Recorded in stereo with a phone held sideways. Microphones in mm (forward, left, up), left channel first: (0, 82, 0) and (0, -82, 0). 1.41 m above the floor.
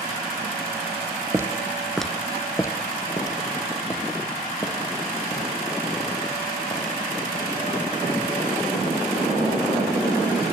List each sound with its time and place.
1.3 s footsteps: 15° right (ahead or behind), 1.5 m; by 10.2 s 30° left (ahead or behind), 12 m